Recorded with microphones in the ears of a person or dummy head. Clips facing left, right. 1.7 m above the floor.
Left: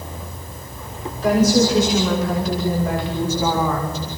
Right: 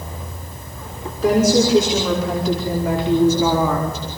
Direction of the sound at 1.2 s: 70° right (ahead or behind).